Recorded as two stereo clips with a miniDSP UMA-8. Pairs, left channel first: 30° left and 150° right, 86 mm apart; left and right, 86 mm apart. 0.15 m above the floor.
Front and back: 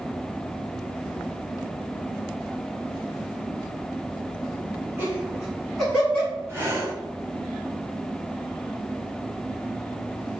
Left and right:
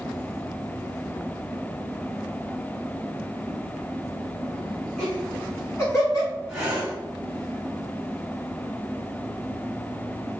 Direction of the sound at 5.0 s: 170° left.